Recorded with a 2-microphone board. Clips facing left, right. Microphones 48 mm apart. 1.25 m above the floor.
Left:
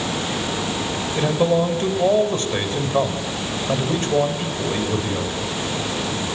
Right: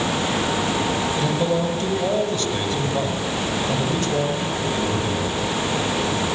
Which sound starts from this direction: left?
A man speaking, at 1.1 s.